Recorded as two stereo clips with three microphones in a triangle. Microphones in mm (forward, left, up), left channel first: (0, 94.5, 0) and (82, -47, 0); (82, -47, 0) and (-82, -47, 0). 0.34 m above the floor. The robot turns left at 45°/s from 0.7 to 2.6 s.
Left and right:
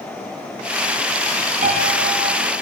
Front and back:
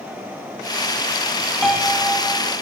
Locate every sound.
1.6 s a piano: 90° right, 2 m; by 2.5 s 130° right, 2 m